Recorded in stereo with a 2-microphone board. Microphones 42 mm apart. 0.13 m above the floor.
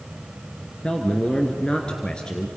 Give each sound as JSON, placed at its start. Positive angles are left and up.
{"t": 0.8, "sound": "a man speaking", "side_deg": 20, "distance_m": 1.8}